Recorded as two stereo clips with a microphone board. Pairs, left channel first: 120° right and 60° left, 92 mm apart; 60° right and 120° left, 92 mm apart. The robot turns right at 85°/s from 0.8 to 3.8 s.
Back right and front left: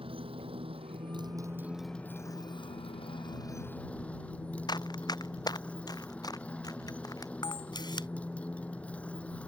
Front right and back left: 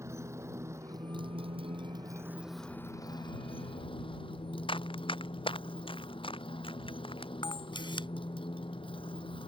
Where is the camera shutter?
85° right.